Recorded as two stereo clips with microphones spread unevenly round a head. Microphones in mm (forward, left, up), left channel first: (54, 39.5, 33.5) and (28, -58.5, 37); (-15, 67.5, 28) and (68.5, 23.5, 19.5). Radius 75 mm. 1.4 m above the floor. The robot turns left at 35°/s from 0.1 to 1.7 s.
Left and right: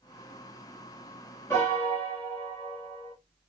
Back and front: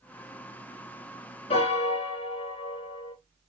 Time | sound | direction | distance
1.5 | a piano | 155° left | 1.5 m